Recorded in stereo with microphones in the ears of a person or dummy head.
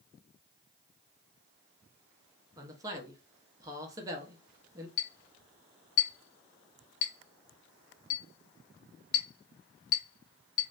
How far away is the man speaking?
About 0.7 m.